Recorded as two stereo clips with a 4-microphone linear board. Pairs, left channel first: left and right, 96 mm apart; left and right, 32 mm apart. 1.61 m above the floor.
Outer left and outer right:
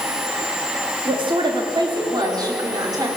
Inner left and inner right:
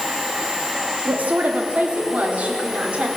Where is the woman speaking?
55° right (ahead or behind), 3.5 m; by 3.1 s 35° right (ahead or behind), 5 m.